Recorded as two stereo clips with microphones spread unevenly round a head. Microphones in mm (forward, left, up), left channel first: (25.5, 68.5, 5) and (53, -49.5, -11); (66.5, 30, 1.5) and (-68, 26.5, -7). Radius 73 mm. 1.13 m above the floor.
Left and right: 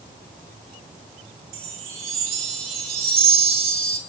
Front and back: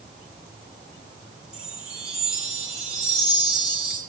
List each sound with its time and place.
1.5 s a chime: 90° right, 2 m